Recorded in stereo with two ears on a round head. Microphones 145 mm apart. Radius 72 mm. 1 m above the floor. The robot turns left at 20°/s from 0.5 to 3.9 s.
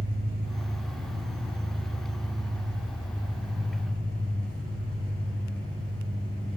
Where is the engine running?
120° right, 3.5 m; by 6.6 s 175° left, 3.5 m.